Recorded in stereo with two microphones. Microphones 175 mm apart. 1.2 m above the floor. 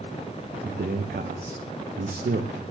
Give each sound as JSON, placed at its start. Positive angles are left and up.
{"t": 0.6, "sound": "a man speaking", "side_deg": -70, "distance_m": 0.7}